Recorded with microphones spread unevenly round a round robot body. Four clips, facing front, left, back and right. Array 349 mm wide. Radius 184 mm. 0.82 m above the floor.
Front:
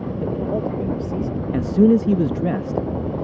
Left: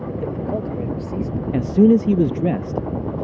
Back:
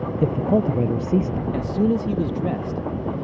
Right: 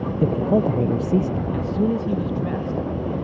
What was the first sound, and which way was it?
A man speaking, 135° right.